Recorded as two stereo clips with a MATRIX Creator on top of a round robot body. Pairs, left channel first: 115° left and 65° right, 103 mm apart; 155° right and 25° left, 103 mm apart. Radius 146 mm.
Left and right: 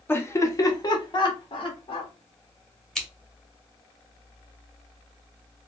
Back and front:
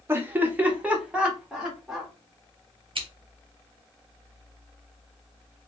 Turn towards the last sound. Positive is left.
turn(degrees=25)